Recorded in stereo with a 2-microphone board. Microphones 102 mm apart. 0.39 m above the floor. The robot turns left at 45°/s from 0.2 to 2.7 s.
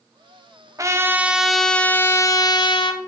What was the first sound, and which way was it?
A trumpet, 145° right.